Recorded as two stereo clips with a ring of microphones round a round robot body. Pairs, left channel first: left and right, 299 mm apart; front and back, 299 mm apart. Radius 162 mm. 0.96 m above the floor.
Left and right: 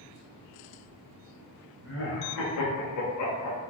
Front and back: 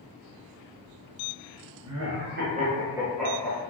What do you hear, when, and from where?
1.8 s laughter: 145° left, 1.0 m; by 3.6 s 75° left, 1.0 m